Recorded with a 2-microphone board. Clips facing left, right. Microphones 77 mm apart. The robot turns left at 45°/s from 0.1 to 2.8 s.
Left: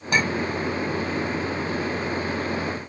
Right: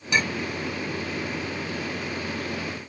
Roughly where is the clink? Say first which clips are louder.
Left 3 dB; left.